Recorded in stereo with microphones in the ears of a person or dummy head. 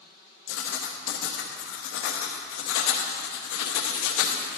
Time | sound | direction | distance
0.5 | writing | 60° left (ahead or behind) | 0.8 m